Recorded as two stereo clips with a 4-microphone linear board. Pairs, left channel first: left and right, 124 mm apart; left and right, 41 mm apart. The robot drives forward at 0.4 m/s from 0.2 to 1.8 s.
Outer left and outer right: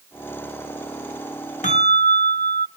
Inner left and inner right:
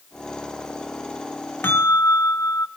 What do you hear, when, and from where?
1.6 s a bell: 80° left, 1.0 m; by 2.7 s 75° left (ahead or behind), 1.1 m